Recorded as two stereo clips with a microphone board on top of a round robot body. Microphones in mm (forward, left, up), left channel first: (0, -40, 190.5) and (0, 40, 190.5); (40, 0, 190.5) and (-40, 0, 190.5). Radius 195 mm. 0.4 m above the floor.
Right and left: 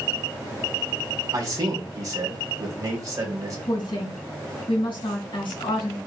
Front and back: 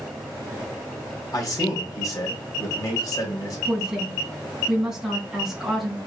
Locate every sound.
1.3 s a man speaking: 45° left, 3.5 m
3.7 s a woman speaking: 95° right, 4 m